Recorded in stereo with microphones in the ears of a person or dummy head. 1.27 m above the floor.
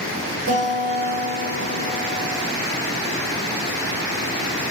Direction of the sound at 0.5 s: 70° right (ahead or behind).